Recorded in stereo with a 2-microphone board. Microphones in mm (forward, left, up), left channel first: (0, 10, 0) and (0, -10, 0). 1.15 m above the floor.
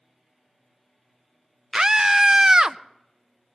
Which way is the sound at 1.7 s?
30° right (ahead or behind).